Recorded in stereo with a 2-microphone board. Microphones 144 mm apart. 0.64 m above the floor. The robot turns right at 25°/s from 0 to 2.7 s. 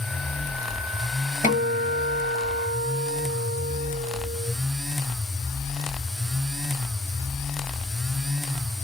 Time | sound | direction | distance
1.4 | a guitar | 80° left | 0.7 m